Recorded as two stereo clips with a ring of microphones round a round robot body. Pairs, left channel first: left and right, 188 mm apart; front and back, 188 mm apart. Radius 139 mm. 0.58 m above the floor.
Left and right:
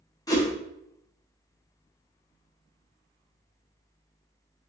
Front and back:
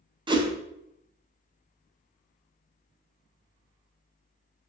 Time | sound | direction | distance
0.3 | a whoosh | 140° left | 0.7 m